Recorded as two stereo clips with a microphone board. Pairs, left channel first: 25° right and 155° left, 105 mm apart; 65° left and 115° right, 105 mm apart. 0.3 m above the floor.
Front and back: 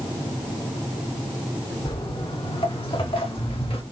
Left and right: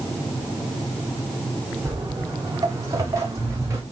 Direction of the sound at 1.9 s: 55° right.